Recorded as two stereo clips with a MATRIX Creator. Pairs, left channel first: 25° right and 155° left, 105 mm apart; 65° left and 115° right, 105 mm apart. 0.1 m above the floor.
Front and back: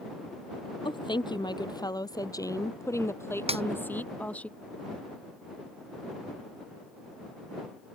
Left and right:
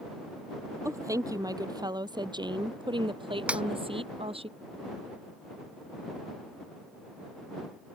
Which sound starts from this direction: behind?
A snare drum, at 3.5 s.